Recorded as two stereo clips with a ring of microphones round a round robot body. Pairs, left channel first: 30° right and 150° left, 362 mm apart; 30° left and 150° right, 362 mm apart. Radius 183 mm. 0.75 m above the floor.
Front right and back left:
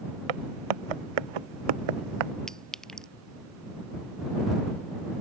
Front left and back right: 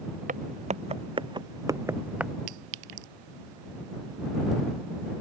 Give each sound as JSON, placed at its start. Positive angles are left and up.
{"t": 0.3, "sound": "footsteps", "azimuth_deg": 140}
{"t": 2.5, "sound": "a clink", "azimuth_deg": -120}